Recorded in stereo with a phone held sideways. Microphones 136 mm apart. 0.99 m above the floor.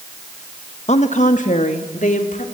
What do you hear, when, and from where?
0.9 s a woman speaking: 55° left (ahead or behind), 1.2 m; by 2.4 s 70° left (ahead or behind), 3.5 m